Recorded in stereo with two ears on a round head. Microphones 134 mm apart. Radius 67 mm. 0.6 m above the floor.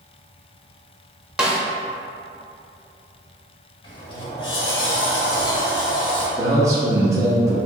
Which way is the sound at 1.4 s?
5° right (ahead or behind).